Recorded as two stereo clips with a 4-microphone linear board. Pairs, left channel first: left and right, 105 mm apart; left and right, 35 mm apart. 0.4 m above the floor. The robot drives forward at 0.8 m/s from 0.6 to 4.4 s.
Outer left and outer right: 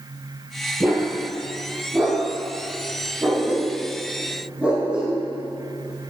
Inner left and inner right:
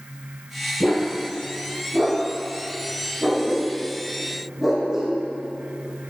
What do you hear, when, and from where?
0.8 s a dog barking: 20° right (ahead or behind), 3.5 m; by 6.1 s 10° right (ahead or behind), 6.5 m